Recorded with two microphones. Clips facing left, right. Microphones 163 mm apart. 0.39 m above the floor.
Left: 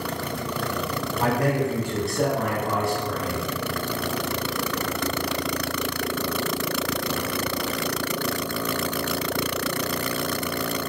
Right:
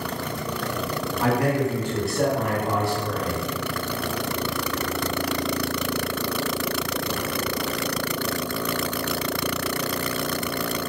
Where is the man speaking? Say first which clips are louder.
Right 1 dB; 35° left (ahead or behind), 1.0 m; by 3.4 s 50° right (ahead or behind), 1.3 m.